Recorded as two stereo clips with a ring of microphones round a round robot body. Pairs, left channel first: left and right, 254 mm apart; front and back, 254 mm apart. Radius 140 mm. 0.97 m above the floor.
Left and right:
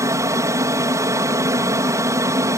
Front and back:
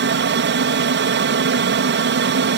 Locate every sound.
0.0 s an aircraft: 165° right